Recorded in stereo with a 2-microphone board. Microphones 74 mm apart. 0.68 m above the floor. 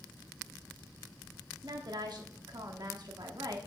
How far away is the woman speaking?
About 1.1 m.